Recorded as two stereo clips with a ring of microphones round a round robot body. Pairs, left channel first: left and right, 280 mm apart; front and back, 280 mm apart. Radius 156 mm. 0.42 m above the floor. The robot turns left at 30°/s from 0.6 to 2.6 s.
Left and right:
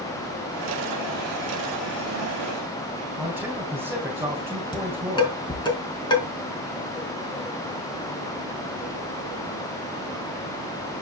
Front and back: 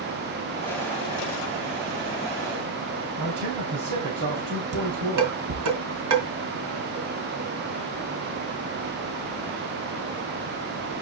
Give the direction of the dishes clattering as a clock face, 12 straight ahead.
7 o'clock.